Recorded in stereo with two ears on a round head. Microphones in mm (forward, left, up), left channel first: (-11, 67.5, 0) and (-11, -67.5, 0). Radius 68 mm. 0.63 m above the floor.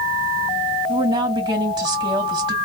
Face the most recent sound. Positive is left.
turn(degrees=-30)  # may be behind; listen again after turning